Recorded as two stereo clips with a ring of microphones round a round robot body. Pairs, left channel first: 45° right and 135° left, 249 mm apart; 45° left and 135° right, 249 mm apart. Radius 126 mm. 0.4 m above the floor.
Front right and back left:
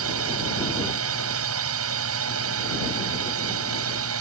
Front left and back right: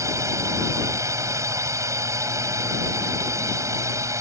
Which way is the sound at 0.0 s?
150° left.